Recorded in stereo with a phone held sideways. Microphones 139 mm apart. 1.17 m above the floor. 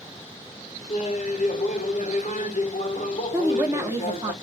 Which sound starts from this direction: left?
Laughter, at 0.9 s.